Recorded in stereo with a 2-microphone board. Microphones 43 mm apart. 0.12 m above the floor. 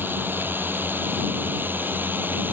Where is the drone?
50° right (ahead or behind).